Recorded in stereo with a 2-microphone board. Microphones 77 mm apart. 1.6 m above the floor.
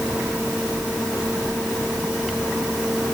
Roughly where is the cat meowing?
No cat meowing in this recording.